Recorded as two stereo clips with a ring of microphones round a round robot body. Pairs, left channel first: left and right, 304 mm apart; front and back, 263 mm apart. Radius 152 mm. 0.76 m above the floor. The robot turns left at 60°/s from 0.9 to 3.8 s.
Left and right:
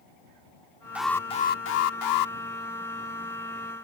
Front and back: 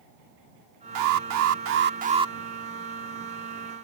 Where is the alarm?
175° right; by 2.4 s 100° left.